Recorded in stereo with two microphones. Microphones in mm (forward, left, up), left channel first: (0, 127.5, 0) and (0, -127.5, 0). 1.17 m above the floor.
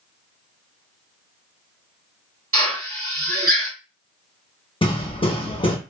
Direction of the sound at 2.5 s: 60° right (ahead or behind).